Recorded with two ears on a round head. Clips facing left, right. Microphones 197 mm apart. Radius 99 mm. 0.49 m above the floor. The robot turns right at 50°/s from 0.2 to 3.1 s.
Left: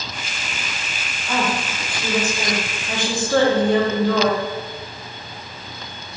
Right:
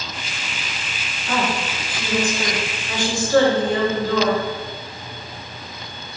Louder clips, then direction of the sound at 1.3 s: Even; 40° right.